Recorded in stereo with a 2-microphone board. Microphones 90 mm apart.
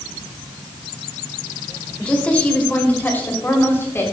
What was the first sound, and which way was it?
A woman speaking, 10° left (ahead or behind).